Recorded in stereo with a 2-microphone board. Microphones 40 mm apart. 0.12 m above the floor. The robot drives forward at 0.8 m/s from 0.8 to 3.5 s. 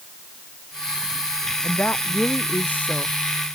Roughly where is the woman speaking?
Left.